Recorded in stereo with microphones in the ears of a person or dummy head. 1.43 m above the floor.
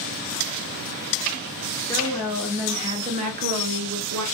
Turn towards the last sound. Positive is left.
turn(degrees=-75)  # may be behind; listen again after turning